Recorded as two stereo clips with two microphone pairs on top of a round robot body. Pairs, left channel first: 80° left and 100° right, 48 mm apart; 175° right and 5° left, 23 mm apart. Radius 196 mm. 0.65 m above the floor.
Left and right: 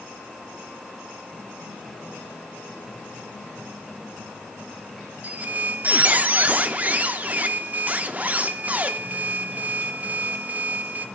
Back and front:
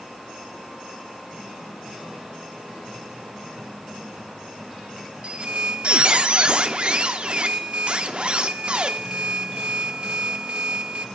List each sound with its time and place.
5.2 s a squeak: 40° right, 0.5 m